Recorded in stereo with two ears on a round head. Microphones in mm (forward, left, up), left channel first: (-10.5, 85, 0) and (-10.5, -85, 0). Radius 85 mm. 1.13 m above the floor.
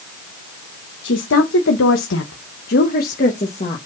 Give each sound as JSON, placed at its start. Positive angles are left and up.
{"t": 1.0, "sound": "a woman speaking", "side_deg": 70, "distance_m": 1.2}